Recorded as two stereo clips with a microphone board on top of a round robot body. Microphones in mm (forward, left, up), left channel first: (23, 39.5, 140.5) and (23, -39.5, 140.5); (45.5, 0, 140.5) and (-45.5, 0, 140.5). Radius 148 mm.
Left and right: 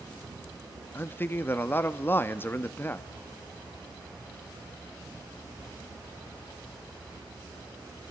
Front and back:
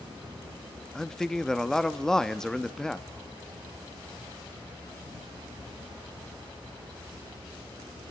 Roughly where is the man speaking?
Left.